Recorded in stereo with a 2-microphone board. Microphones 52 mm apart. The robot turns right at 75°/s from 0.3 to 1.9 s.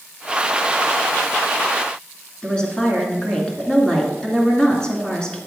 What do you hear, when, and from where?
2.4 s a woman speaking: 15° left (ahead or behind), 2 m